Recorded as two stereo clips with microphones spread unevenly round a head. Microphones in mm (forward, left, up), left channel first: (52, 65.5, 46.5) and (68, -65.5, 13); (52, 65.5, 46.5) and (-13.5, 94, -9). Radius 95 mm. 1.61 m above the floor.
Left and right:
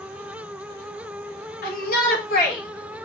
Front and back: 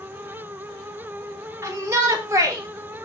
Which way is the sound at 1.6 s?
100° left.